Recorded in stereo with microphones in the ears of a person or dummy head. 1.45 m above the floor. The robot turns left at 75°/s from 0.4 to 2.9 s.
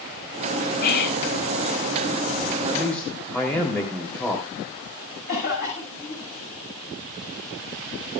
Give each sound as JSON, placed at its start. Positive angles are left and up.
{"t": 0.8, "sound": "whispering", "azimuth_deg": 130, "distance_m": 4.0}
{"t": 2.6, "sound": "a man speaking", "side_deg": -15, "distance_m": 3.5}
{"t": 5.3, "sound": "a cough", "side_deg": 45, "distance_m": 6.5}